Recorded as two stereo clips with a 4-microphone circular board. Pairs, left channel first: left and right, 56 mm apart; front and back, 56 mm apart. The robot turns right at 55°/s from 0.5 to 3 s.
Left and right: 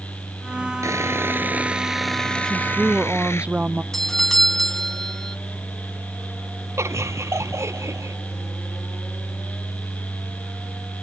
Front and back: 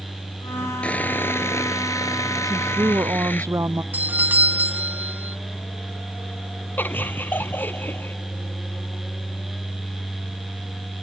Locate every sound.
0.8 s sawing: 70° right; by 3.5 s 50° left
2.5 s a woman speaking: 175° left; by 3.8 s 155° right
3.9 s a doorbell: 165° left
6.8 s laughter: 55° right